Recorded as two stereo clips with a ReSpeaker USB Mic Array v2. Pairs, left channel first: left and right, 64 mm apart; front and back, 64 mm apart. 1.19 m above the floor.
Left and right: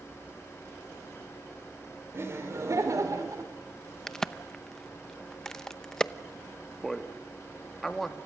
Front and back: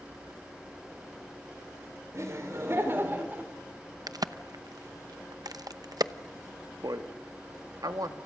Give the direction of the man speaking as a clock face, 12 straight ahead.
6 o'clock.